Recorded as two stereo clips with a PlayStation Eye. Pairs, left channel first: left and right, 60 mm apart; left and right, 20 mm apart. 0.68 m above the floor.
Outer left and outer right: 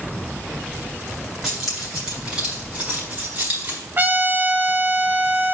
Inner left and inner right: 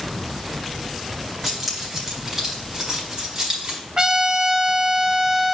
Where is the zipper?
I don't hear a zipper.